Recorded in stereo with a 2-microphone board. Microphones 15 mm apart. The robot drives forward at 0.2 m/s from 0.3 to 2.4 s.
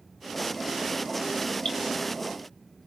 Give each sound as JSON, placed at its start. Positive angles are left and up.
{"t": 1.6, "sound": "dripping", "side_deg": 70, "distance_m": 3.0}